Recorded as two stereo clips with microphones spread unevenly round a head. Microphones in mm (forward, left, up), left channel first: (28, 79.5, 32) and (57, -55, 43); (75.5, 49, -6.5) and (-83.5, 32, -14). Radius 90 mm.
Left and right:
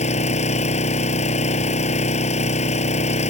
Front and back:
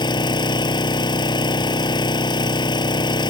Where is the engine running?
65° left.